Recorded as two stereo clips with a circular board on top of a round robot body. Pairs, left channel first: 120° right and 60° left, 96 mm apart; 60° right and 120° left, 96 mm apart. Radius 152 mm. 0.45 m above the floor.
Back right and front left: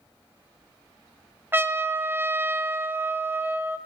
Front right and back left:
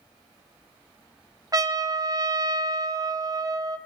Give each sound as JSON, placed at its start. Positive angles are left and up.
{"t": 1.5, "sound": "a trumpet", "azimuth_deg": 115, "distance_m": 1.3}